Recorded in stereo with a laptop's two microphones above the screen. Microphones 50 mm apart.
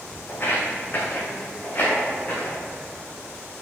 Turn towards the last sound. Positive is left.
turn(degrees=30)  # may be behind; listen again after turning